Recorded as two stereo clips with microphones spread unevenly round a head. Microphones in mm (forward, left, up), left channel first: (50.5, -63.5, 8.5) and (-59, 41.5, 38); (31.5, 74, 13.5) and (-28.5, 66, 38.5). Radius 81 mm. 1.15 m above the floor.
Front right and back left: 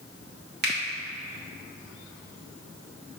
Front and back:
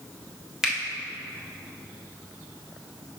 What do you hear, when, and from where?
0.6 s a finger snap: 105° left, 1.8 m